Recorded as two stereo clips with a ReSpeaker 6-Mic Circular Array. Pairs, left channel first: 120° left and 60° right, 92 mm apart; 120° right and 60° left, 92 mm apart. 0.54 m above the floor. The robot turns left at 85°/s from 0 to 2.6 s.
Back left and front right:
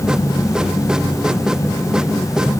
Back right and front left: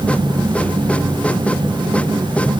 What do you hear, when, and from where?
Only background noise.